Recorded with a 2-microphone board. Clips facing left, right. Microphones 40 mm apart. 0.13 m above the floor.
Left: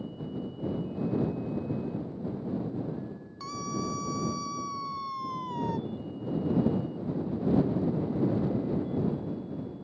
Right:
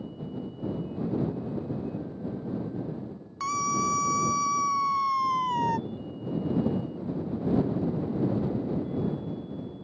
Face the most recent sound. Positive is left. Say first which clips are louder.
# right 8 dB
turn(degrees=-65)  # may be behind; listen again after turning